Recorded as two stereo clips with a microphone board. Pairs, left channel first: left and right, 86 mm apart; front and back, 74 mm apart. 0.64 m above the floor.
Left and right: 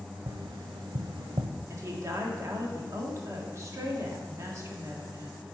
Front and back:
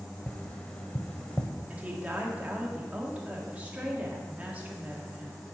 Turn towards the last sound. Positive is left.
turn(degrees=-120)